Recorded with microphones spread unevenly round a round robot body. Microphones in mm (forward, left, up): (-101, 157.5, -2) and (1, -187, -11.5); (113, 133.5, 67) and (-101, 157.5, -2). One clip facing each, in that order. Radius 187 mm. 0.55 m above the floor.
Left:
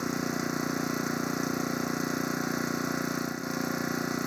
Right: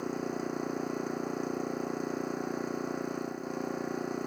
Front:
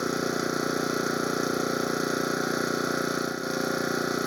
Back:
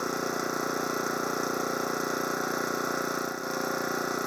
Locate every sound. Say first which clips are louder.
0.0 s an engine running: left 3 dB, front 4 dB; 55° left